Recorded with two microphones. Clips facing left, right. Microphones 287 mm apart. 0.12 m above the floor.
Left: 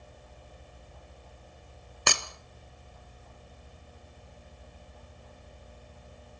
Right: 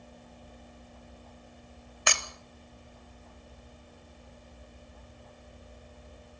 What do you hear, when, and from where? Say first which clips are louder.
2.1 s breaking glass: left 2 dB; 45° left (ahead or behind), 1.3 m